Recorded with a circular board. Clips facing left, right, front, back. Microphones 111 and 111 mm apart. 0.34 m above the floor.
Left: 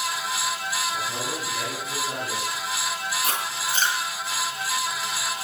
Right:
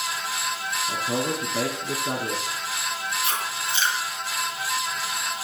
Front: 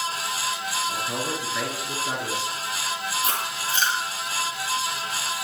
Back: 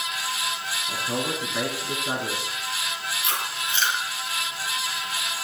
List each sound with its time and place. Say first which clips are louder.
0.9 s a man speaking: right 4 dB, even; 105° right, 5 m
3.2 s chewing: even, front 2 dB; 50° left, 7.5 m